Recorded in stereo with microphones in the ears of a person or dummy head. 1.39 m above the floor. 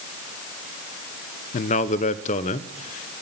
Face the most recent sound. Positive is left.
turn(degrees=35)  # may be behind; listen again after turning